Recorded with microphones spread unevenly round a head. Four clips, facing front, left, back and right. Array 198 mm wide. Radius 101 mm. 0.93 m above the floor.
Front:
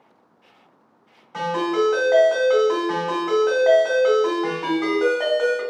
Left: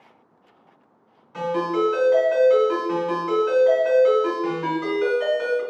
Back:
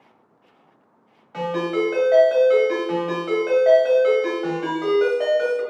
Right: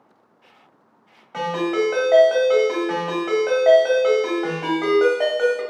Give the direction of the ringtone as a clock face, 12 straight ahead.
3 o'clock.